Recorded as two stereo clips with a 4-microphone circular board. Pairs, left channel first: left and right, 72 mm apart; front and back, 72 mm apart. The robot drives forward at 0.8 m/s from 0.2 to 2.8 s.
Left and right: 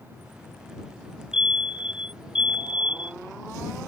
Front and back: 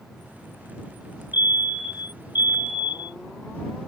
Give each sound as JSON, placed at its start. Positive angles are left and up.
{"t": 1.3, "sound": "a fire alarm", "azimuth_deg": -15}